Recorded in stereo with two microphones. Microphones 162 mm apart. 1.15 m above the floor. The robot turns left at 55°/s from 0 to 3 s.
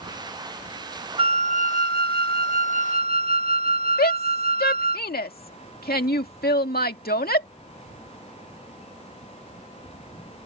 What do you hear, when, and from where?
1.2 s a flute: 35° right; by 5.0 s 135° right
4.0 s a shout: 85° left